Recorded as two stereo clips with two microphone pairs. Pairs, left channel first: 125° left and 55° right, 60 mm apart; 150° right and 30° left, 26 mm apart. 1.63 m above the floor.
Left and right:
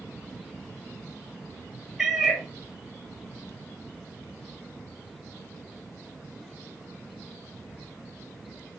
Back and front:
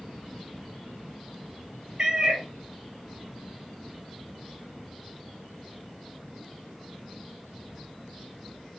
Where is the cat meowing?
15° left, 0.9 m.